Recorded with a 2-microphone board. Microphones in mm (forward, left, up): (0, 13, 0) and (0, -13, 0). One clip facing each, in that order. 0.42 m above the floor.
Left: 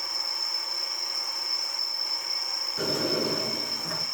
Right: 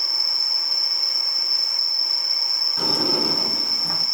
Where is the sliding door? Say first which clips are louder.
Right 3 dB; 70° right (ahead or behind), 2.5 m.